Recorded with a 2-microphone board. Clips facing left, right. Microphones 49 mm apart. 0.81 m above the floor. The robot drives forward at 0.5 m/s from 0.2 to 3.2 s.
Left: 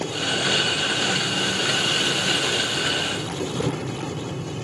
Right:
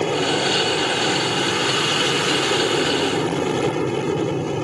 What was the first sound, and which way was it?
An aircraft, 55° right (ahead or behind).